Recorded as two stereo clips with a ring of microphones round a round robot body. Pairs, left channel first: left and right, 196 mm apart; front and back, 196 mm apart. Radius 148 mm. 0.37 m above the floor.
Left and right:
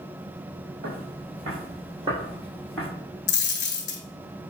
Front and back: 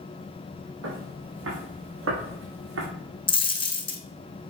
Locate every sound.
0.8 s footsteps: 145° right, 3.5 m; by 2.9 s 170° left, 1.9 m
3.3 s a dropped coin: 65° left, 1.1 m